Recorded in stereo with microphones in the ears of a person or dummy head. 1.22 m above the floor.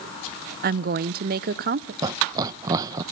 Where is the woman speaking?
45° right (ahead or behind), 0.6 m.